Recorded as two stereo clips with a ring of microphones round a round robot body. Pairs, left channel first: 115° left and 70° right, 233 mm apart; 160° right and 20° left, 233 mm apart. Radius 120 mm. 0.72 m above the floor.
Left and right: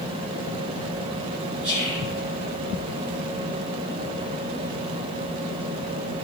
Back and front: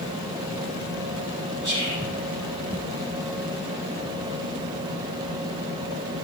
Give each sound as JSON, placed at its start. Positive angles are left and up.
{"t": 1.6, "sound": "whispering", "azimuth_deg": -20, "distance_m": 6.0}